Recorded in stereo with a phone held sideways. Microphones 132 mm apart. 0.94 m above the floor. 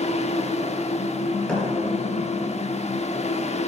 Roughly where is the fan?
Left.